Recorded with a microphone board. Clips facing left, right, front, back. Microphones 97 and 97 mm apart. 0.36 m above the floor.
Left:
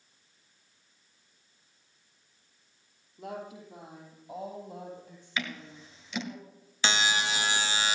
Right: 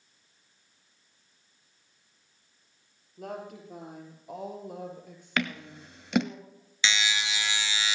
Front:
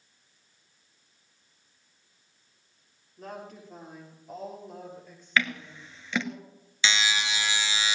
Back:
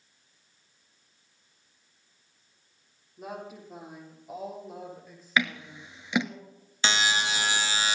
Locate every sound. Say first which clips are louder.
3.2 s a woman speaking: right 1 dB, back 2 dB; 100° right, 8 m; by 6.4 s 90° right, 6.5 m
5.4 s scissors: right 5 dB, even; 105° right, 1.1 m
6.8 s a buzzer: left 2 dB, back 1 dB; 130° left, 0.8 m